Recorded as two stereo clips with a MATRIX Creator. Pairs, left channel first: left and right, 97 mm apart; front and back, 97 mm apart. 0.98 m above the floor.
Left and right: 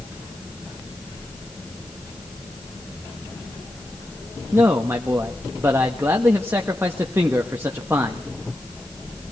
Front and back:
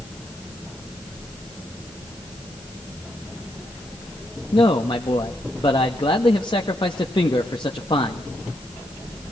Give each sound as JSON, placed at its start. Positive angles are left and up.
{"t": 4.5, "sound": "a man speaking", "azimuth_deg": -25, "distance_m": 1.4}